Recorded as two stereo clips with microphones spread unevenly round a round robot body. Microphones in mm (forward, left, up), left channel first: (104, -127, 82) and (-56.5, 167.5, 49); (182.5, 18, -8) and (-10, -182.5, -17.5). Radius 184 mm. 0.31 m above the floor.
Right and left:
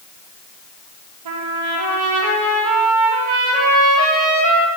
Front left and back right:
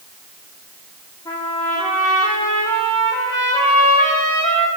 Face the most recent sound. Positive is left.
turn(degrees=125)